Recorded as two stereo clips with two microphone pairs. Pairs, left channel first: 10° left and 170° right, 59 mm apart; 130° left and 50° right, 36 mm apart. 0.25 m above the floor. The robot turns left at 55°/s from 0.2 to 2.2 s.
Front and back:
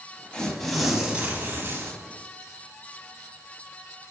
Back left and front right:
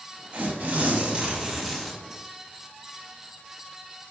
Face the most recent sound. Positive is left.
turn(degrees=-160)